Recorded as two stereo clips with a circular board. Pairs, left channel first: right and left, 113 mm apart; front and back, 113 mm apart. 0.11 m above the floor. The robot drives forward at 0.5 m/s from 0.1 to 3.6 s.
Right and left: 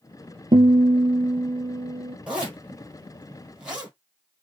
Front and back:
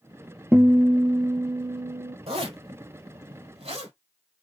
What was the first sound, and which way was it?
A guitar, 110° left.